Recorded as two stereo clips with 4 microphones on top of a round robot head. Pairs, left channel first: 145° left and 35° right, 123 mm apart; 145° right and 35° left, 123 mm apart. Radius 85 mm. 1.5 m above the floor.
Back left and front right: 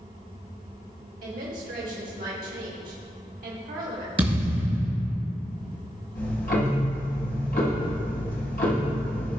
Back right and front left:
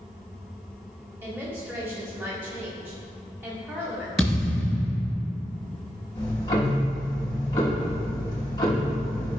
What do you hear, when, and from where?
1.2 s a woman speaking: 40° right, 1.3 m
4.2 s a thud: 60° right, 1.7 m
6.2 s ticking: 155° left, 1.1 m